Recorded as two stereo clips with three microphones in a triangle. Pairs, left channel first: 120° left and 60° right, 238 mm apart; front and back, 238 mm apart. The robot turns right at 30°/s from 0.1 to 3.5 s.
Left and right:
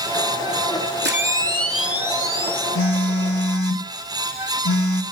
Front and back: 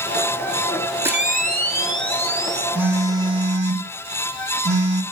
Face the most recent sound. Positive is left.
turn(degrees=120)